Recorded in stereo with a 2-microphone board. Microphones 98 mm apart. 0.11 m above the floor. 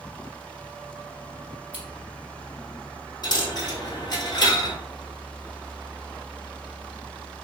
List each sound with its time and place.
1.7 s scissors: 15° right (ahead or behind), 1.1 m
3.2 s a dropped coin: 45° left (ahead or behind), 1.0 m